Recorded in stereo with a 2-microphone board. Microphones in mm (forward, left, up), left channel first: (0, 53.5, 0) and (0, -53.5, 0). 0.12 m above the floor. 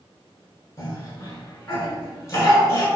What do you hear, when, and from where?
0.8 s a cough: 30° left (ahead or behind), 1.5 m